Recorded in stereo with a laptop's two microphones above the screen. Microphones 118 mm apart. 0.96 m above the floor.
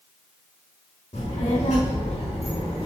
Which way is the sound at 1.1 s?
70° left (ahead or behind).